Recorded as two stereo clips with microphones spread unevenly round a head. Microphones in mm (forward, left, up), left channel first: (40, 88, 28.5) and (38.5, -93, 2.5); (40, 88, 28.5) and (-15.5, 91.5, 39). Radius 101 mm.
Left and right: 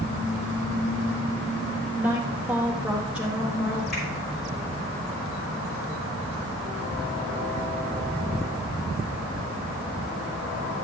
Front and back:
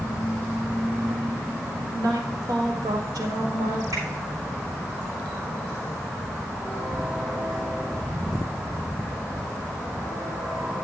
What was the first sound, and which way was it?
A woman speaking, 170° right.